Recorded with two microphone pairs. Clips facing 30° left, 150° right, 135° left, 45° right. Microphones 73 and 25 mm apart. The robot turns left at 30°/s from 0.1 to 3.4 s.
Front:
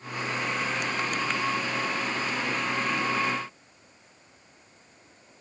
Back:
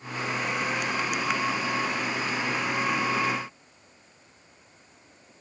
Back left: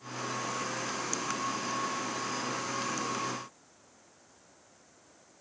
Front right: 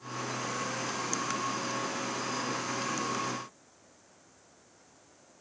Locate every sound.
Only background noise.